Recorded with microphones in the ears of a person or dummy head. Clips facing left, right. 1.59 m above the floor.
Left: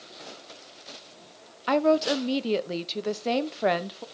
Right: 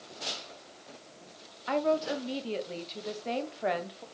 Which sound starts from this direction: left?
A woman speaking, at 1.7 s.